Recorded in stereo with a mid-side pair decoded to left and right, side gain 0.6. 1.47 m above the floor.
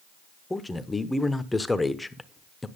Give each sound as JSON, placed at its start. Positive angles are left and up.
{"t": 0.5, "sound": "a man speaking", "azimuth_deg": 10, "distance_m": 0.9}